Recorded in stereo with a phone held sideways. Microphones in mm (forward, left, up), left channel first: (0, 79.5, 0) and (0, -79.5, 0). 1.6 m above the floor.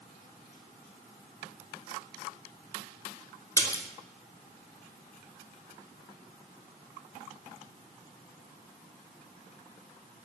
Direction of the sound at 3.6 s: 20° left (ahead or behind).